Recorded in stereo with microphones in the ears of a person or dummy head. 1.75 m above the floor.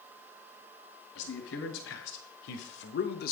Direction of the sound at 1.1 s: 85° left.